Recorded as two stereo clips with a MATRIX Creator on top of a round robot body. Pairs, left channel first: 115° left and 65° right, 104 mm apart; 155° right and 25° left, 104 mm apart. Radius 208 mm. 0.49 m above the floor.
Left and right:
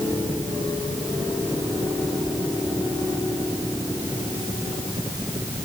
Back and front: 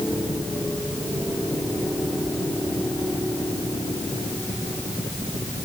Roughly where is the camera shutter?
I don't hear a camera shutter.